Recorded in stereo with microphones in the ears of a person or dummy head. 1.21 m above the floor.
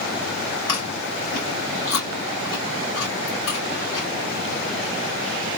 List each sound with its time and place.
0.7 s chewing: 90° left, 2.0 m